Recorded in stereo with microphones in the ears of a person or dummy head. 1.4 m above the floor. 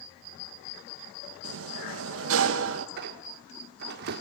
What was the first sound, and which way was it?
A sliding door, 80° right.